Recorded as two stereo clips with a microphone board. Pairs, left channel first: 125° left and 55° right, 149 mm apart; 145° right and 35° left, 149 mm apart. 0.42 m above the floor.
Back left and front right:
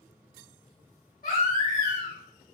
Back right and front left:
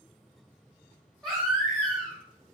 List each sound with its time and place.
1.2 s a baby crying: 125° left, 1.7 m